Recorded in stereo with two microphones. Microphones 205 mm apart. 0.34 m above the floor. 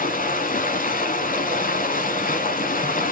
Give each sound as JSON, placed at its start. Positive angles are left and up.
{"t": 0.0, "sound": "running water", "side_deg": 45, "distance_m": 0.7}